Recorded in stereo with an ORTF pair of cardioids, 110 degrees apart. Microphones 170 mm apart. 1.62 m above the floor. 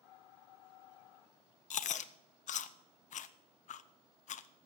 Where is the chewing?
45° left, 0.7 m.